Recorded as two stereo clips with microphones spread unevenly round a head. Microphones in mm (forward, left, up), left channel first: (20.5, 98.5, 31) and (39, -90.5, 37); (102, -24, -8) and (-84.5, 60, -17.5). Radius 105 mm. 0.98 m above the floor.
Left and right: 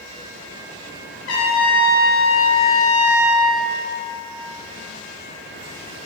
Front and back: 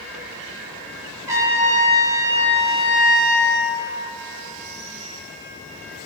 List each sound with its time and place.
1.3 s a trumpet: 80° left, 0.8 m